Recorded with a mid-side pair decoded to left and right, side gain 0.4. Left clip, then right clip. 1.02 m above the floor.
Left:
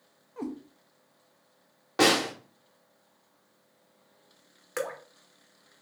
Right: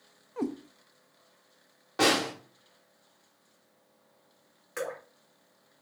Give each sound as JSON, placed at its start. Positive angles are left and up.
{"t": 0.4, "sound": "a cat meowing", "azimuth_deg": -45, "distance_m": 0.5}
{"t": 2.0, "sound": "a snare drum", "azimuth_deg": 35, "distance_m": 1.0}
{"t": 4.8, "sound": "dripping", "azimuth_deg": 50, "distance_m": 1.1}